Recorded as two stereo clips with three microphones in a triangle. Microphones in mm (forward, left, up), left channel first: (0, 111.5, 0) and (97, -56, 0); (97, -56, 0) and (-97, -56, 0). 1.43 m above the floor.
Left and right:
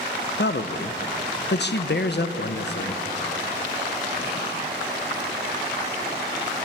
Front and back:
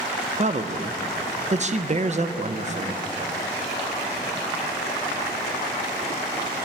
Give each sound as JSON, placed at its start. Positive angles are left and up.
{"t": 0.4, "sound": "a man speaking", "azimuth_deg": 135, "distance_m": 0.7}